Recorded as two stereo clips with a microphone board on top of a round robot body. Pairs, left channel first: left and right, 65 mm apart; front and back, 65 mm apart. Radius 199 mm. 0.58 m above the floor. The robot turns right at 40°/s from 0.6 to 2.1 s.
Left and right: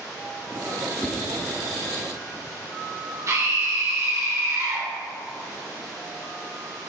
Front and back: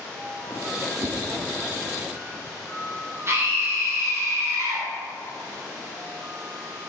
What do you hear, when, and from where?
1.0 s a whoosh: 160° left, 1.1 m; by 1.2 s 165° left, 1.1 m
3.3 s a scream: 130° right, 3 m